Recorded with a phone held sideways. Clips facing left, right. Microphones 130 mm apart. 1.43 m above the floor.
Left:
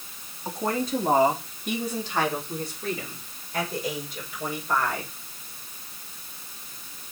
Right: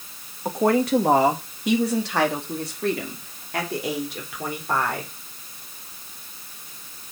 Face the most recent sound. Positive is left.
turn(degrees=-65)  # may be behind; listen again after turning